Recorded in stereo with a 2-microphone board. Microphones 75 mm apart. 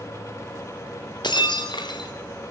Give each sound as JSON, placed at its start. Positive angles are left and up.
{"t": 1.2, "sound": "breaking glass", "side_deg": 75, "distance_m": 5.5}